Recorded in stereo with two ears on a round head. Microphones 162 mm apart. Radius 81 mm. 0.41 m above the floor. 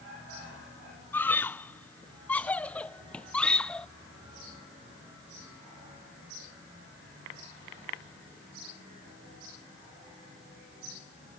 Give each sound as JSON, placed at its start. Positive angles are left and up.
{"t": 1.1, "sound": "a scream", "side_deg": 10}